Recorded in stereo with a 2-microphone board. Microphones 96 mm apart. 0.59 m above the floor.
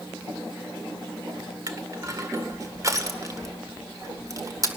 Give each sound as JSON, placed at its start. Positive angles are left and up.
{"t": 1.7, "sound": "crushing", "side_deg": -35, "distance_m": 1.9}